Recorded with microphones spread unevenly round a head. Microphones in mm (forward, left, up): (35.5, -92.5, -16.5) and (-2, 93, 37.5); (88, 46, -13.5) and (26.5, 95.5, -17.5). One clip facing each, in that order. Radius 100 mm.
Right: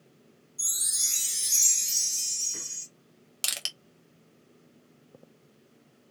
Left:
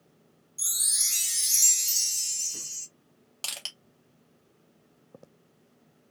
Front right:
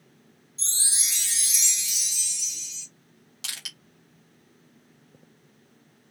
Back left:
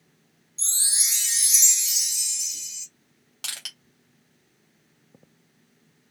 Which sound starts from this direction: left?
A chime, at 0.6 s.